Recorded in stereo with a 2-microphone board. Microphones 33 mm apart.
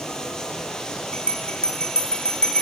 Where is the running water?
20° left (ahead or behind), 3.5 m.